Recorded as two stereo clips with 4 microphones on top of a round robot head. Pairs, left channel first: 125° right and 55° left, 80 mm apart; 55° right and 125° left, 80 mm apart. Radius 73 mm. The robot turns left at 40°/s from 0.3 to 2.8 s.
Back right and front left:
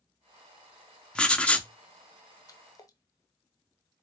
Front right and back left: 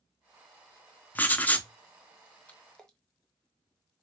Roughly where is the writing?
Ahead right.